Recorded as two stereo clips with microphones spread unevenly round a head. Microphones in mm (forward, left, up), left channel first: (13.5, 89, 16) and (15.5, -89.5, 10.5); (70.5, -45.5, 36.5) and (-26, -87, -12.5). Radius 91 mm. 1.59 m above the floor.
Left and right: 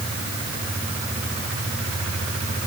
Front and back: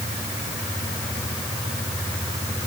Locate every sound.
Only background noise.